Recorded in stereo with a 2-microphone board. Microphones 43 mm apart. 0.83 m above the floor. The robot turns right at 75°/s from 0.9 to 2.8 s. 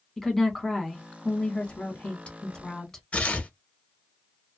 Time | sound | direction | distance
0.2 | a woman speaking | 15° left | 1.0 m
3.1 | tearing paper | 35° left (ahead or behind) | 0.9 m